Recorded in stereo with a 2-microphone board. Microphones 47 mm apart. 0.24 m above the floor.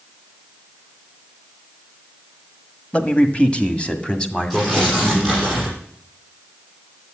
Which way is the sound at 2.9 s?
30° left (ahead or behind).